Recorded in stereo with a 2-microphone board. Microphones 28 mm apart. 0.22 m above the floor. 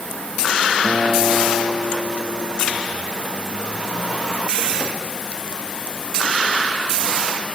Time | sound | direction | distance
0.8 | a guitar | 65° right (ahead or behind) | 5 m